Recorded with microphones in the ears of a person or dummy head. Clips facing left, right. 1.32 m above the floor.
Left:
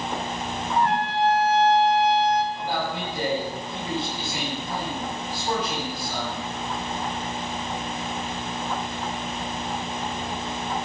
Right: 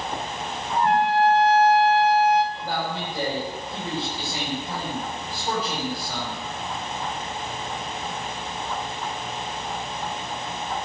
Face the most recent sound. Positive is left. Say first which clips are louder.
# left 1 dB
turn(degrees=-40)  # may be behind; listen again after turning